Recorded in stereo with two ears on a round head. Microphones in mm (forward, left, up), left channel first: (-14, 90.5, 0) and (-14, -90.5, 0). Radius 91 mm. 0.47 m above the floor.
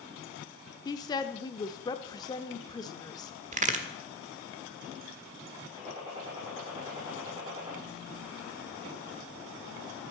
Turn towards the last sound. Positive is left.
turn(degrees=-20)  # may be behind; listen again after turning